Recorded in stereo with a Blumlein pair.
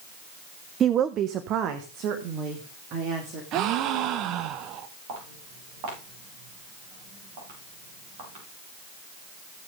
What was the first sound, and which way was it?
A woman speaking, 25° right.